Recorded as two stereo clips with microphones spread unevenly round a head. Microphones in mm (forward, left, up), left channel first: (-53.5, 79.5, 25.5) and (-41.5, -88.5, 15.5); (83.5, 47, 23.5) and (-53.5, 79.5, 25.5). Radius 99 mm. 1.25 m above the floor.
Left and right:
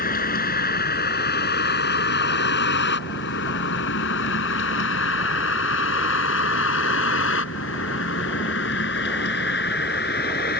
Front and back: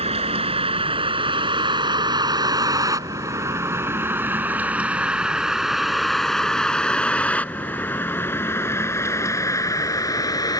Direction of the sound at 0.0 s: 125° left.